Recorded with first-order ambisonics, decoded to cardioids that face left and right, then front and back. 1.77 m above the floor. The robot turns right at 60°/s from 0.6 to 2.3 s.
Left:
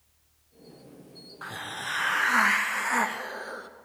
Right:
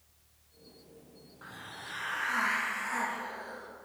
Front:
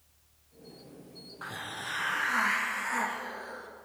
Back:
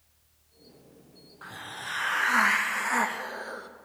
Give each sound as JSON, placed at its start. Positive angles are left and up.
{"t": 1.4, "sound": "a hiss", "azimuth_deg": 70, "distance_m": 0.5}